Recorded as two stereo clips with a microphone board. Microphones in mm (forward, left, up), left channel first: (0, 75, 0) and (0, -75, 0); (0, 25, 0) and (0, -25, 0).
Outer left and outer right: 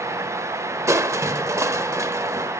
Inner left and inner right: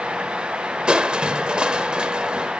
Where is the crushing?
20° right (ahead or behind), 0.7 m.